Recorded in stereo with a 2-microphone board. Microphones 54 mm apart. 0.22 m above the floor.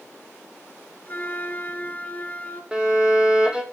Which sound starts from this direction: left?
A flute, at 1.1 s.